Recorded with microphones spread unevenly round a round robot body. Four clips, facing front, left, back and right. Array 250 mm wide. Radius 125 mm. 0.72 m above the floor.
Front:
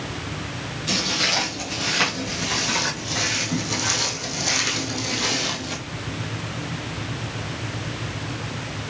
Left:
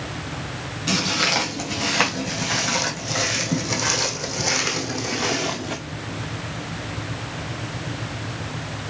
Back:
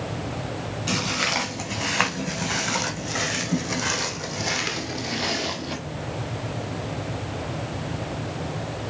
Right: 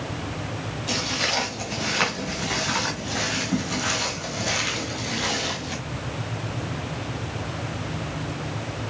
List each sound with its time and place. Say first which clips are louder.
0.9 s footsteps: left 5 dB, front 1 dB; 110° left, 4 m; by 5.8 s 80° left, 1.8 m